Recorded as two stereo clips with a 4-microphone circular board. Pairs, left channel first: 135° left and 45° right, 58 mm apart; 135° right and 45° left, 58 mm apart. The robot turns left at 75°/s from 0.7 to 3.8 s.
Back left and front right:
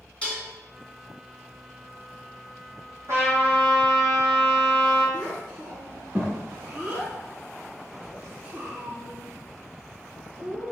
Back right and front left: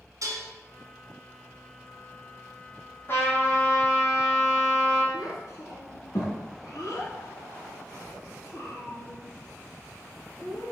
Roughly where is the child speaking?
Behind right.